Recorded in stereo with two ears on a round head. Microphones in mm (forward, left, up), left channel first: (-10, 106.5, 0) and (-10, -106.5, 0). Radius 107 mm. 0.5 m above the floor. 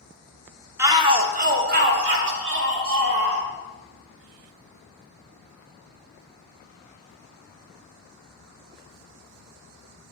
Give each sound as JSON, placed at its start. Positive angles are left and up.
{"t": 0.8, "sound": "a shout", "side_deg": -10, "distance_m": 0.8}